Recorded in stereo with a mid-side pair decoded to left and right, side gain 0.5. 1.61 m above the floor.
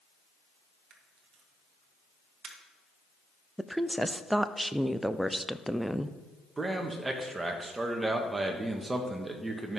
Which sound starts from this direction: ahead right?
A camera shutter, at 0.9 s.